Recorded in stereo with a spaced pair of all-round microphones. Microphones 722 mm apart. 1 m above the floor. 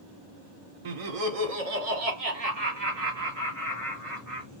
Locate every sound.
0.8 s laughter: 50° right (ahead or behind), 0.7 m; by 4.5 s 55° right (ahead or behind), 2.5 m